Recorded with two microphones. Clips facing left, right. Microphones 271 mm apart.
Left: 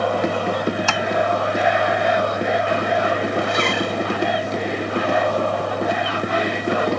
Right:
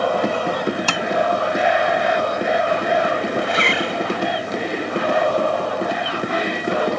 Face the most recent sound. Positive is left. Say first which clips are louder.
# even
turn(degrees=50)  # may be behind; listen again after turning